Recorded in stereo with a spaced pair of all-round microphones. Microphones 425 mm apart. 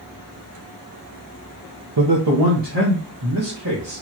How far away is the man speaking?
About 0.8 m.